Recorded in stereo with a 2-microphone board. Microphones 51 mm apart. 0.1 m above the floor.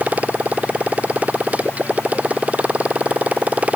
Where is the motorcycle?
30° right (ahead or behind).